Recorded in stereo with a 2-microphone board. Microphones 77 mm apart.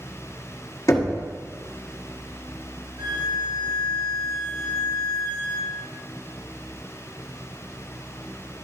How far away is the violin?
About 1.3 m.